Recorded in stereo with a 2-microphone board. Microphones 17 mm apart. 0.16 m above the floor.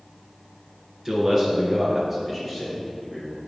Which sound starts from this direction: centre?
A man speaking, at 1.1 s.